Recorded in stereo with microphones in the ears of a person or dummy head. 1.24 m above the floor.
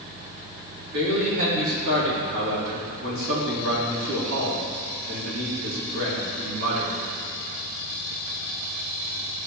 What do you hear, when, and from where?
0.9 s a man speaking: 70° right (ahead or behind), 3 m